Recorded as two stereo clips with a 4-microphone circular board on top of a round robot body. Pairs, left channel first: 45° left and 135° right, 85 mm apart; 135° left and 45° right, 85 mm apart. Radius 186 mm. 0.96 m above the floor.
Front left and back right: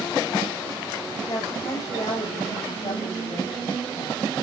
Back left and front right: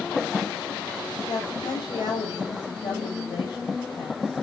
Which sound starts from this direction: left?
A woman speaking, at 1.3 s.